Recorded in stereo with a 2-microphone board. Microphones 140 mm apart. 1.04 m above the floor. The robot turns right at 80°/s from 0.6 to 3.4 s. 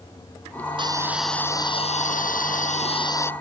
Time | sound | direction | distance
0.8 | a hiss | 40° right | ?